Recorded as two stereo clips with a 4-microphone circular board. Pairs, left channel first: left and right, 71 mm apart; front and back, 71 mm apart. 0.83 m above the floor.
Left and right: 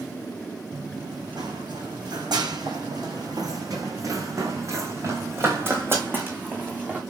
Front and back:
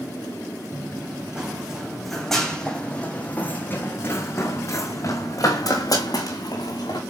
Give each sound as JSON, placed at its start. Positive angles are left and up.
{"t": 0.7, "sound": "running footsteps", "azimuth_deg": -110, "distance_m": 3.0}